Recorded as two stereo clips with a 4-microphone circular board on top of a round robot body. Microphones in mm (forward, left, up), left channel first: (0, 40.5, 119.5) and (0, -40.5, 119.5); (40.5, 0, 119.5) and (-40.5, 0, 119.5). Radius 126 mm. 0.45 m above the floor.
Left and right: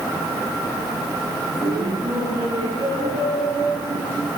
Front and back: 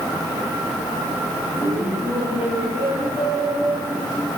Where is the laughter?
120° right, 7 m; by 4.3 s 110° right, 7.5 m.